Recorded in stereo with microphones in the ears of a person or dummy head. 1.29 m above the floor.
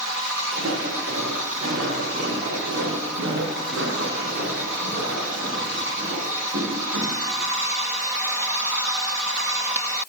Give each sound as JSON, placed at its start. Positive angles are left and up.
{"t": 0.5, "sound": "footsteps", "side_deg": -75, "distance_m": 5.5}